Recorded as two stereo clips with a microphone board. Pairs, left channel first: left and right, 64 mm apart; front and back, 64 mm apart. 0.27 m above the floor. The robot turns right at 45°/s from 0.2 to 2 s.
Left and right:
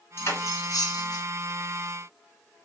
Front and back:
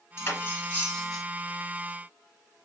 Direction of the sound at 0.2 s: 40° left.